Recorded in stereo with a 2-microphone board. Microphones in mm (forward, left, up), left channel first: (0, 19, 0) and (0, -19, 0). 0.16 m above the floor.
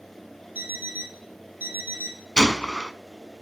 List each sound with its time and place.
0.6 s an alarm clock: 55° right (ahead or behind), 1.4 m
2.4 s a gunshot: 20° left (ahead or behind), 0.6 m